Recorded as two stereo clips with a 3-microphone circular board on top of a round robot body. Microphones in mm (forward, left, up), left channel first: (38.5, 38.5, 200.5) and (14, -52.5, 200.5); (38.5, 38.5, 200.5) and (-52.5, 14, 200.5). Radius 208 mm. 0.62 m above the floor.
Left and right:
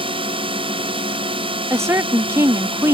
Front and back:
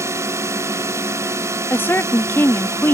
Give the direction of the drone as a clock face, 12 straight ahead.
4 o'clock.